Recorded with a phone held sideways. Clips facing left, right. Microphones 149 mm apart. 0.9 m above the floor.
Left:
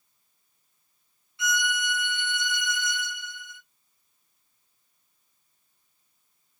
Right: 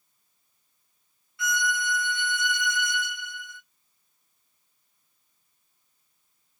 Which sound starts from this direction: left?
A violin, at 1.4 s.